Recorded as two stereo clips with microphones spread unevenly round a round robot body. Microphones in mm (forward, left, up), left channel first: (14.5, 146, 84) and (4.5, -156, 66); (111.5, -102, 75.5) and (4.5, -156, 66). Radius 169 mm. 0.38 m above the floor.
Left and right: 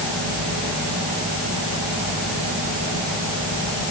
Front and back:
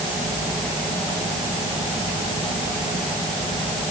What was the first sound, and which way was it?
Only background noise.